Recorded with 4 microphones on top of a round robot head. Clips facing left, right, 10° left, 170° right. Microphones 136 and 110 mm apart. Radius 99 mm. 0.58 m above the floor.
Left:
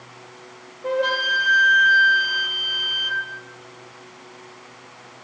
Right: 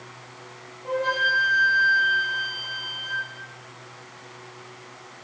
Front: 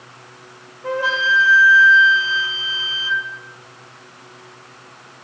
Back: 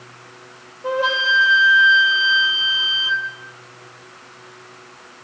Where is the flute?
120° left, 1.5 m.